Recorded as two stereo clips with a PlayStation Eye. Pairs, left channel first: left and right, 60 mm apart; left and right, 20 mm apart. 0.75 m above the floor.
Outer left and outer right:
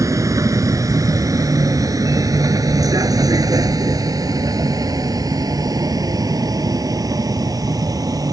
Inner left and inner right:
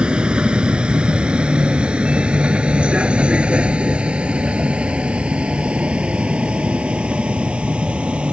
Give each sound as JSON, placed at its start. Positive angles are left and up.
{"t": 0.0, "sound": "a vehicle", "side_deg": -60}